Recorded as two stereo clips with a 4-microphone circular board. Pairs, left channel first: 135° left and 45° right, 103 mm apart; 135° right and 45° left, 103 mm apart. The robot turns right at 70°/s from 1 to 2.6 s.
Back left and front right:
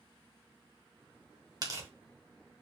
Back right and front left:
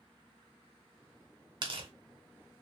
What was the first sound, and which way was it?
Tearing paper, straight ahead.